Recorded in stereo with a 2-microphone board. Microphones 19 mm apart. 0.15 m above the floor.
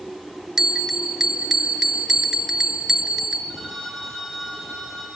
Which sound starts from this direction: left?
A phone ringing, at 3.5 s.